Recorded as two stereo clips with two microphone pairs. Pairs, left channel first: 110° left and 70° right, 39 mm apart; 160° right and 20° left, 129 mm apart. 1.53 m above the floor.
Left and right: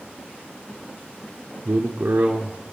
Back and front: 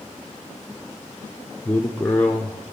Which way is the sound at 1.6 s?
80° right.